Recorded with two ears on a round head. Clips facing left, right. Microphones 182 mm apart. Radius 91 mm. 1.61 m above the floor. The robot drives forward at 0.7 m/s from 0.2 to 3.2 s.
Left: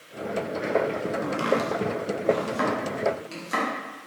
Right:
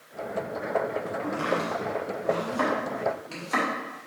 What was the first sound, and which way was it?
Chopping, 45° left (ahead or behind).